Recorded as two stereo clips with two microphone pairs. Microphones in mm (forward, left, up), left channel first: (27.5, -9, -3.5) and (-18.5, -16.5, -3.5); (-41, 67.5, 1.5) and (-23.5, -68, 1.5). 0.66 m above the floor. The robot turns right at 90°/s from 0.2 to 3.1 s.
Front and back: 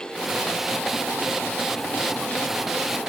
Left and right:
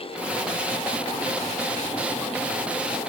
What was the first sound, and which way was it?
Only background noise.